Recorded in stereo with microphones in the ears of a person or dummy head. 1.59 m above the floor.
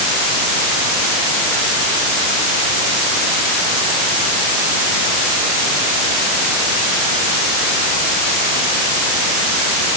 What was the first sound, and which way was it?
Only background noise.